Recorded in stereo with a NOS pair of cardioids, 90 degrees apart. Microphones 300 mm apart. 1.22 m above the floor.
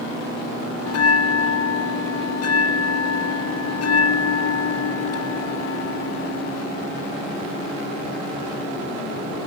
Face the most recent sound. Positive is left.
turn(degrees=55)